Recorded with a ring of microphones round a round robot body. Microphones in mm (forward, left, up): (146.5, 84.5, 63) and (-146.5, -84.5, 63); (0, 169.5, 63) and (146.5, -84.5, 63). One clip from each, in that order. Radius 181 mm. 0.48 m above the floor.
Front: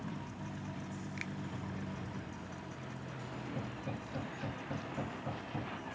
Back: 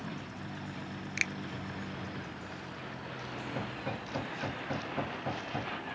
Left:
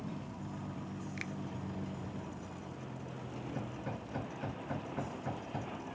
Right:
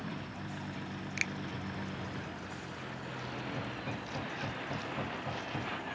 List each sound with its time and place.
0.0 s a vehicle: 100° right
1.2 s a finger snap: 120° right
3.5 s hammering: 160° right